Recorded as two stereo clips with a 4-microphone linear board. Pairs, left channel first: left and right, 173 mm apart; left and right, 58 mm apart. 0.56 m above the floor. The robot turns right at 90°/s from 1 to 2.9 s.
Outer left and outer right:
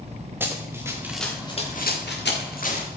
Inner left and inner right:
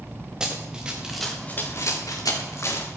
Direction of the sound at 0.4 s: 10° right (ahead or behind).